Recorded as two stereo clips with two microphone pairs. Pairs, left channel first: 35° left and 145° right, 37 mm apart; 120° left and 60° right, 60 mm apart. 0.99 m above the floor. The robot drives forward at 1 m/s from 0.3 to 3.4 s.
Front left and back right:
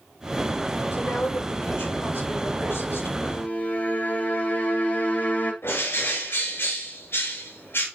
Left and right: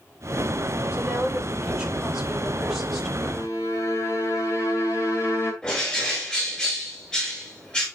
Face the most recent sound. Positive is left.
turn(degrees=50)